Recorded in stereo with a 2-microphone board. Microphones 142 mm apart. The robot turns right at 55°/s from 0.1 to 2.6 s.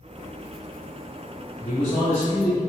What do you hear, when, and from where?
1.6 s a man speaking: 125° left, 1.5 m; by 2.6 s straight behind, 1.5 m